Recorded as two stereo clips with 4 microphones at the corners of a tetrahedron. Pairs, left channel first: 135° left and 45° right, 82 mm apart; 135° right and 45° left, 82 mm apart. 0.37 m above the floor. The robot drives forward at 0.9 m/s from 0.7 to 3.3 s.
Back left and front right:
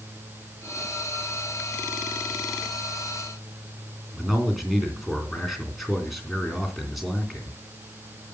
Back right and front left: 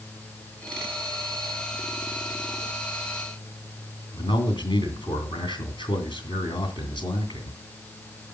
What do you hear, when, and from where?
4.1 s a man speaking: 135° right, 3 m